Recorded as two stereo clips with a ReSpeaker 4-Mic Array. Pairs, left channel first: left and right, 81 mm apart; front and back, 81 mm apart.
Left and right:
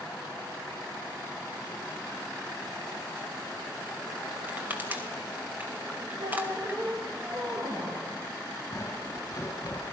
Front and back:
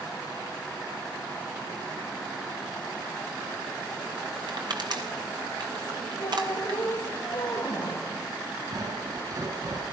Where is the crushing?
155° right, 3.5 m.